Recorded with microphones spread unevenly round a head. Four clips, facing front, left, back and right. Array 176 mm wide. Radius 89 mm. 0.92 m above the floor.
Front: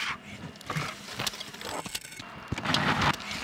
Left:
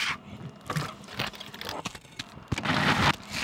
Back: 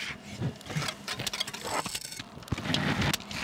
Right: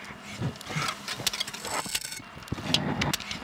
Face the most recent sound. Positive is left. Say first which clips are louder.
# right 9 dB, back 7 dB
turn(degrees=-115)